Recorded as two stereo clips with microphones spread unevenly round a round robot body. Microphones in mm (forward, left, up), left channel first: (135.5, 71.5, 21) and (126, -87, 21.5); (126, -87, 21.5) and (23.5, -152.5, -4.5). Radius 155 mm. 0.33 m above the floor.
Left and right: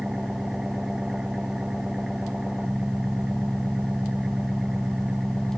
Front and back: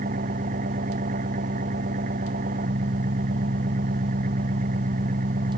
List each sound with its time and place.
0.0 s an engine running: straight behind